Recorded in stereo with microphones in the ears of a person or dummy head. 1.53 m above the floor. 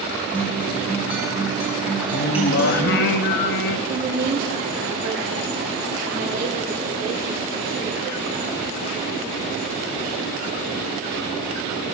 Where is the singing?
55° left (ahead or behind), 0.7 m.